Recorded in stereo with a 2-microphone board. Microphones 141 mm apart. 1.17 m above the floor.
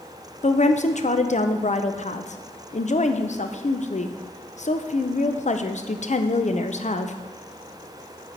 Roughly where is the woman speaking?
Left.